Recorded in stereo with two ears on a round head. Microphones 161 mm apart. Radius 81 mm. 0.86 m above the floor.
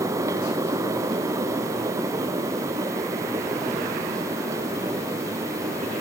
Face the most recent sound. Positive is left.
No sound to turn to.